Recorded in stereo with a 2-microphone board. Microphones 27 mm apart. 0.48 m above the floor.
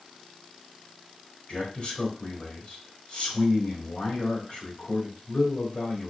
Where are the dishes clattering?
No dishes clattering in this recording.